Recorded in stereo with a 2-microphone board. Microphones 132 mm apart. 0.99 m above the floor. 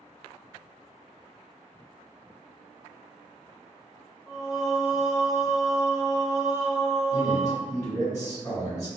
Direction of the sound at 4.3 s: 25° left (ahead or behind).